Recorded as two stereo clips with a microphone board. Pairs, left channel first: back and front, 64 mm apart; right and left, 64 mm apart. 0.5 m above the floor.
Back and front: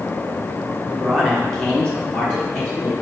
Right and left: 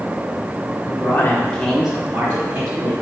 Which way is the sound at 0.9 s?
85° right.